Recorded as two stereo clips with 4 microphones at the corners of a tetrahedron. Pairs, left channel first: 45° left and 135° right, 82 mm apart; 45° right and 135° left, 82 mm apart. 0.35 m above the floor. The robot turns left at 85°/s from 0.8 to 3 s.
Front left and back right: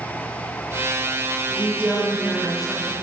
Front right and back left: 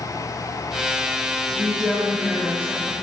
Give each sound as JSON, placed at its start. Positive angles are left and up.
{"t": 1.5, "sound": "a woman speaking", "azimuth_deg": -125, "distance_m": 1.0}